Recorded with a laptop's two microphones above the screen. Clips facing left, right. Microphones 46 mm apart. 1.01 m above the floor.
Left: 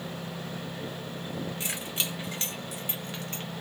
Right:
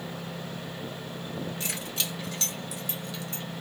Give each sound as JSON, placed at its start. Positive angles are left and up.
{"t": 1.6, "sound": "keys jangling", "side_deg": 20, "distance_m": 1.9}